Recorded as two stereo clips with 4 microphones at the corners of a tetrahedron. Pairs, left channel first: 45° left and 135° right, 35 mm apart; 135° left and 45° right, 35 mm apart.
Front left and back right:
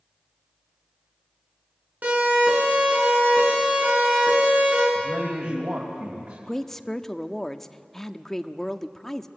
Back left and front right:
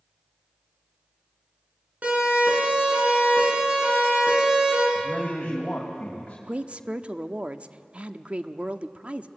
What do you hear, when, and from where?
2.0 s a siren: 90° right, 10 m; by 4.8 s 100° right, 9.5 m
5.0 s a man speaking: 160° right, 3 m
6.5 s a woman speaking: 30° right, 0.8 m